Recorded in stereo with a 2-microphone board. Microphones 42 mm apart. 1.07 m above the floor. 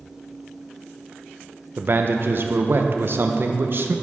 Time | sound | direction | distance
1.8 | a man speaking | 50° right (ahead or behind) | 0.6 m